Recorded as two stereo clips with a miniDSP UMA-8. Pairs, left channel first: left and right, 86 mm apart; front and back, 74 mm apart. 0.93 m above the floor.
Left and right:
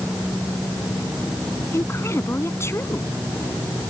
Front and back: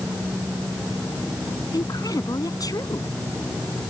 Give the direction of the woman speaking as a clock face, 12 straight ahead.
11 o'clock.